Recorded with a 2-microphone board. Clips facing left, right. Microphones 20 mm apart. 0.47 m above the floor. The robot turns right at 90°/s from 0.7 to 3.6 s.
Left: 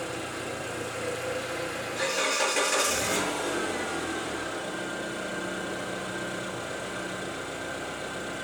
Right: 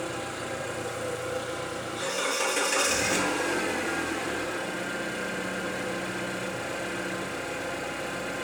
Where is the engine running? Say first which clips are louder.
Right 1 dB; 5° right, 8.5 m; by 8.4 s 105° right, 8.5 m.